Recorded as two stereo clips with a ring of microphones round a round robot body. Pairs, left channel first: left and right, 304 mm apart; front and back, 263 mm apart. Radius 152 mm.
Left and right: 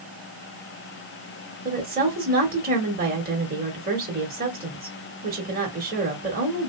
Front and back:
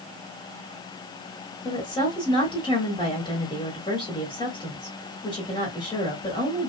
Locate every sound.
1.6 s a woman speaking: 60° right, 1.4 m